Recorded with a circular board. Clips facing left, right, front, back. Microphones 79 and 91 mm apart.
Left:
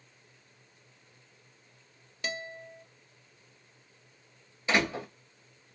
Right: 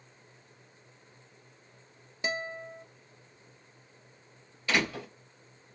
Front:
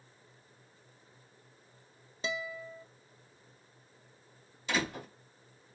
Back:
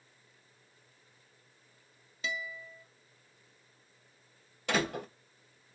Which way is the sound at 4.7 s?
155° left.